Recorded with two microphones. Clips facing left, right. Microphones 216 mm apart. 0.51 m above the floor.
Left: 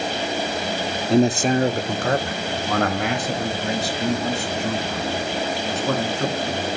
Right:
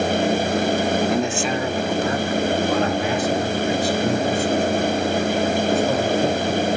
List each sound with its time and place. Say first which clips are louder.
1.1 s a man speaking: left 4 dB; 25° left (ahead or behind), 0.8 m; by 6.7 s 75° left (ahead or behind), 6 m